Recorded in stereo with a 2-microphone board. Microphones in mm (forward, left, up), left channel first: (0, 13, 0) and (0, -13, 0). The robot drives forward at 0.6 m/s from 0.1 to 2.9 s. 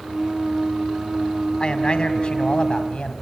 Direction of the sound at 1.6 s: 40° left (ahead or behind).